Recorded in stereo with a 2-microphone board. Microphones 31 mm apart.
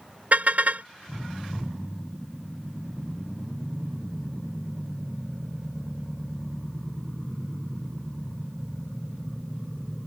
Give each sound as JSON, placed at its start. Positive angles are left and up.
{"t": 0.3, "sound": "a car horn", "side_deg": -60}